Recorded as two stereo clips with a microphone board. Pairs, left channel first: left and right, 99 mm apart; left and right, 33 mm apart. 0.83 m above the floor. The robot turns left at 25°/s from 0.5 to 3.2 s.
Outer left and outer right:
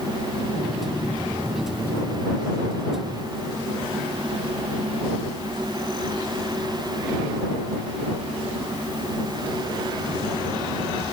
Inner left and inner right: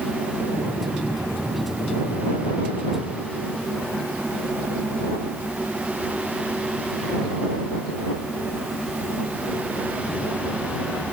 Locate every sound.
Only background noise.